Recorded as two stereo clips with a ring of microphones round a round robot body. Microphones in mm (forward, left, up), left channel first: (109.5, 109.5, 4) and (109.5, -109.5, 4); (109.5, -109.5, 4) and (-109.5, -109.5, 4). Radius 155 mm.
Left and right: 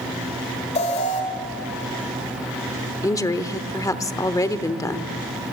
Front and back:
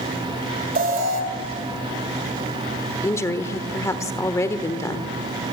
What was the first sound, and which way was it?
An alarm, 145° left.